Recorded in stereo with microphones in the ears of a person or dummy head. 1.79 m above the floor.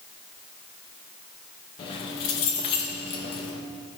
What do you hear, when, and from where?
1.8 s keys jangling: 30° left (ahead or behind), 0.9 m